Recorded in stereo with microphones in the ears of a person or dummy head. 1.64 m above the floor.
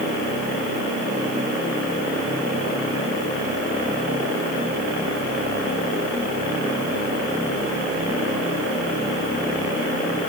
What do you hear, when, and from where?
Only background noise.